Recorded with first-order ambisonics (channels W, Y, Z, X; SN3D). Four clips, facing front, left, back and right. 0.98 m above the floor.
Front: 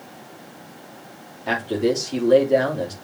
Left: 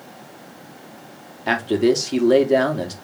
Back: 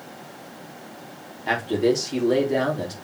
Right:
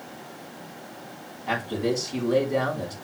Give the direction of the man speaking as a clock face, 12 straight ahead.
9 o'clock.